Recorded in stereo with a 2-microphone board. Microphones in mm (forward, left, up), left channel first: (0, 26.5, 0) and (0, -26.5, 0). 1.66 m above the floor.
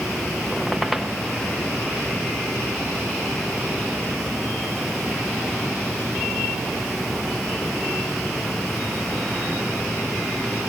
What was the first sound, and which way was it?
A squeak, centre (ahead or behind).